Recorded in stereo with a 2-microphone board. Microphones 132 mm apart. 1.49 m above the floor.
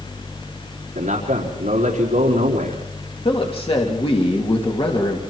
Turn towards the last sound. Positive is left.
turn(degrees=45)  # may be behind; listen again after turning